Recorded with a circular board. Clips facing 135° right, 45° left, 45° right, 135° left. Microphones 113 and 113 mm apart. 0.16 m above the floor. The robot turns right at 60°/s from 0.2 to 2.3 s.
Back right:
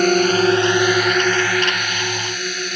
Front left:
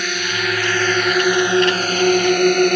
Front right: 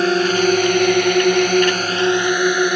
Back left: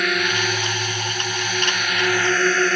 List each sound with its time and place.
0.0 s a drone: 100° right; by 2.8 s 30° left